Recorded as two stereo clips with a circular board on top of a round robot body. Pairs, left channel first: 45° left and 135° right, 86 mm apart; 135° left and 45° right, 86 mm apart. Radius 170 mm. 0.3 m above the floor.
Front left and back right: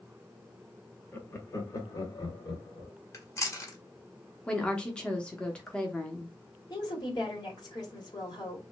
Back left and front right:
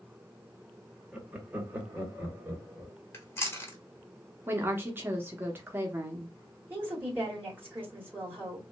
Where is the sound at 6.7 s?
20° left, 2 m.